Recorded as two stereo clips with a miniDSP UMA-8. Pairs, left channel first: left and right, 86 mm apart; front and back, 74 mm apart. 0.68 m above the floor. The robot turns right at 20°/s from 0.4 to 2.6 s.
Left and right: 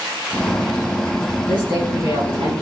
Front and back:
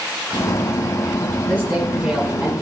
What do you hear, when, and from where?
1.5 s a woman speaking: 115° right, 4.5 m; by 2.5 s 95° right, 4.5 m